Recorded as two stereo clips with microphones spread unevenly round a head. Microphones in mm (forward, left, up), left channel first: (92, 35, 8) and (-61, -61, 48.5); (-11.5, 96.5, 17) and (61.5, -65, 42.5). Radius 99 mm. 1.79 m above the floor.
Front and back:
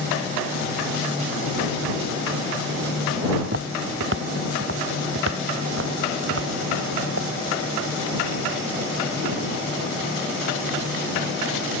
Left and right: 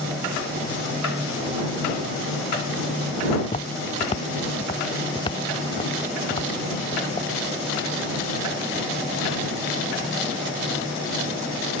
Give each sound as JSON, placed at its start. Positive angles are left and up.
{"t": 3.4, "sound": "footsteps", "azimuth_deg": 180}